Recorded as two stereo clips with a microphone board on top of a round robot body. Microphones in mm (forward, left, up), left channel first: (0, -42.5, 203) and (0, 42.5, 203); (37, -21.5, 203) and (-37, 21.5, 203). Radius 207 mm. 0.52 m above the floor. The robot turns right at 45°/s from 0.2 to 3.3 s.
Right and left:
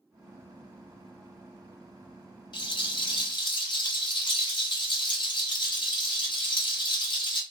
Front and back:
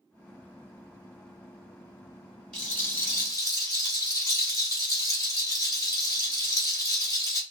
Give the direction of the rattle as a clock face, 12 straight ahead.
4 o'clock.